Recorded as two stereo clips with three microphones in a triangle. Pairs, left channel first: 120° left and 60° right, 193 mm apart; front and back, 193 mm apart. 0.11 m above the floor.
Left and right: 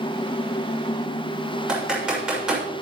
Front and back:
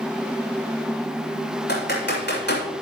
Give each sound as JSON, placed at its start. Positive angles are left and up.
{"t": 1.7, "sound": "typing on a keyboard", "azimuth_deg": 25, "distance_m": 6.5}